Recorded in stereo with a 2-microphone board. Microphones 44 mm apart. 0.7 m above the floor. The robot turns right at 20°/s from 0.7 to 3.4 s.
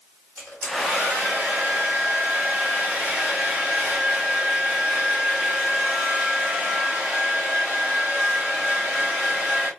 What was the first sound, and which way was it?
A hair dryer, 85° right.